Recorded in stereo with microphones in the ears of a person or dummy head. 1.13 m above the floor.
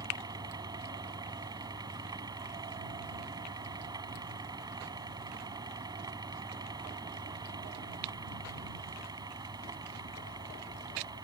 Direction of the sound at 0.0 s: 25° right (ahead or behind).